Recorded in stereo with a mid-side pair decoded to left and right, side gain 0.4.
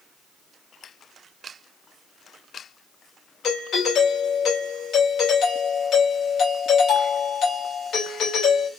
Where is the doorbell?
65° left, 2 m.